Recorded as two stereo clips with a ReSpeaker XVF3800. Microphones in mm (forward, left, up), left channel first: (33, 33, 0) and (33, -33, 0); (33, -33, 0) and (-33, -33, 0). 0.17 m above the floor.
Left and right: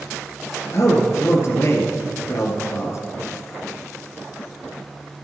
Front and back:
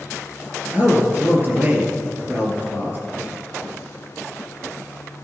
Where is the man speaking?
125° left, 2.5 m.